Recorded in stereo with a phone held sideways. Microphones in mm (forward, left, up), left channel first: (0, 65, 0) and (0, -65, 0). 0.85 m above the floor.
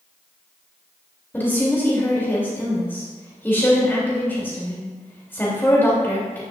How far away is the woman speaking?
About 3 m.